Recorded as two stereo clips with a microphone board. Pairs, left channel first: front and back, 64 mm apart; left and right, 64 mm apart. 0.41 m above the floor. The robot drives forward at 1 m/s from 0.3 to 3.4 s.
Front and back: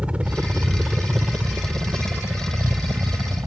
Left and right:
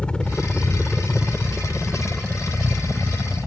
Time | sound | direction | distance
0.0 | a helicopter | 135° left | ?